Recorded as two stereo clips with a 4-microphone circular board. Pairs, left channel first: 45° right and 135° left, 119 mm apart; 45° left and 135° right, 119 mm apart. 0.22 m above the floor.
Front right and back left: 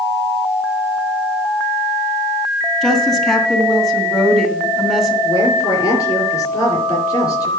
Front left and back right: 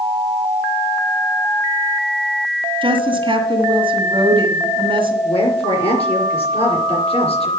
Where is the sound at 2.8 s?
135° right, 2 m.